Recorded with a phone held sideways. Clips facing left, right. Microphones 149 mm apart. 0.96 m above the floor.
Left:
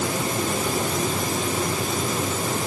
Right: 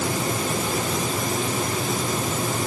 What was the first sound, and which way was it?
Only background noise.